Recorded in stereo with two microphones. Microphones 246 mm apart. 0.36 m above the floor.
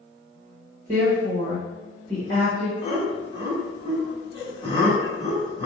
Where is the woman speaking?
35° right (ahead or behind), 1.2 m.